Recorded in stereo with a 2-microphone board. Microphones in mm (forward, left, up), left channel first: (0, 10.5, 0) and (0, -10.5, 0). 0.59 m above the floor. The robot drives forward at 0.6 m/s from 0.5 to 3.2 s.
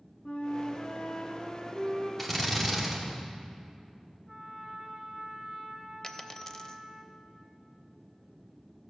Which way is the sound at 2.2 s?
5° left (ahead or behind).